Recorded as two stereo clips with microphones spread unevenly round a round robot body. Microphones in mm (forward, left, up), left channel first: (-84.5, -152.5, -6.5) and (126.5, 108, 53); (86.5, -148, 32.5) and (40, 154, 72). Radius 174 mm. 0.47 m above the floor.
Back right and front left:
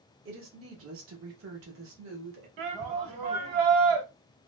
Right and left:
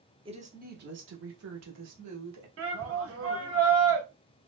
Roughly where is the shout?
Ahead left.